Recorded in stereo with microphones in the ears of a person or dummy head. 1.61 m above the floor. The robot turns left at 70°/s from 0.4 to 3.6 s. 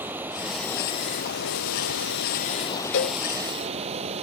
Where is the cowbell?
55° left (ahead or behind); by 3.2 s 60° left (ahead or behind).